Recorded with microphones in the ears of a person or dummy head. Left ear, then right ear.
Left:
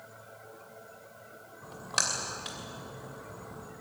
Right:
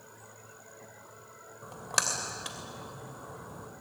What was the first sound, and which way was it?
A splash, 15° right (ahead or behind).